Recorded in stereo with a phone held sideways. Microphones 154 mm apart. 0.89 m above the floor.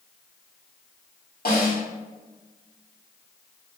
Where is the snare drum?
75° left (ahead or behind), 1.8 m.